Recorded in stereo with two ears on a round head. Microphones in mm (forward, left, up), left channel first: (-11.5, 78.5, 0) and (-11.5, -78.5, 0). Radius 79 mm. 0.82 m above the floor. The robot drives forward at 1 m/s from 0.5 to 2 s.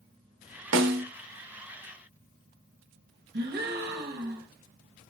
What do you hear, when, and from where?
0.7 s a snare drum: 80° right, 0.6 m; by 1.0 s 65° right (ahead or behind), 0.7 m
3.3 s a gasp: 60° right (ahead or behind), 0.9 m